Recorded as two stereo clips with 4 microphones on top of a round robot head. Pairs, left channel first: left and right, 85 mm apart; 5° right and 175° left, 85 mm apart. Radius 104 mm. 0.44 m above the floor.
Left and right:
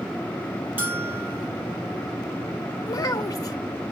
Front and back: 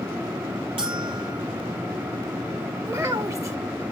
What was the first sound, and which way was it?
A bell, 160° right.